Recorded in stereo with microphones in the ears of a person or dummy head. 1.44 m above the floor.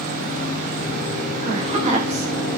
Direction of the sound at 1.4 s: 40° right (ahead or behind).